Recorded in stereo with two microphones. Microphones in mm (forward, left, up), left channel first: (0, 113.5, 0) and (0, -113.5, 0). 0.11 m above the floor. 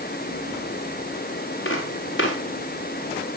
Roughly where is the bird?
I don't hear a bird.